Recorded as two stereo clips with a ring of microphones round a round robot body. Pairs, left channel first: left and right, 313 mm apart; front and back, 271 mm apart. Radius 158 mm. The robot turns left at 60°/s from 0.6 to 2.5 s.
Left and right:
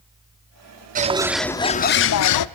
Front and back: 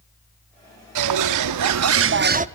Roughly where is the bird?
Behind right.